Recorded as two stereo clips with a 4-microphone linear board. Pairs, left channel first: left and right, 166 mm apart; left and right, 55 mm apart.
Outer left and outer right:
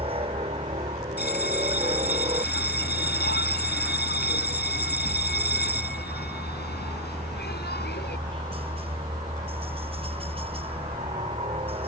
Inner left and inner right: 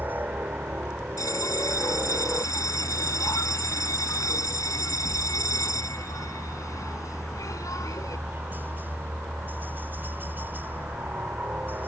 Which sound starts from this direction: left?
A bell, at 1.2 s.